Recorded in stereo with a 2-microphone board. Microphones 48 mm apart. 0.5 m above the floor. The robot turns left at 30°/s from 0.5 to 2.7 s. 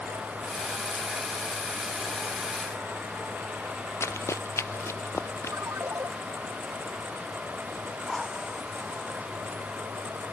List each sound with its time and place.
4.0 s running footsteps: 70° left (ahead or behind); by 5.6 s 60° left (ahead or behind)
5.5 s a ringtone: 70° right (ahead or behind)
8.1 s a drill: centre (ahead or behind)